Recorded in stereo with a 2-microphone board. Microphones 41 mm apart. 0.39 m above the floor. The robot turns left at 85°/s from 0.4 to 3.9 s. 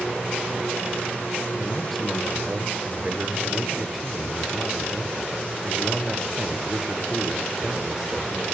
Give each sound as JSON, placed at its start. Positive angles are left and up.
{"t": 1.6, "sound": "a man speaking", "azimuth_deg": 35, "distance_m": 1.0}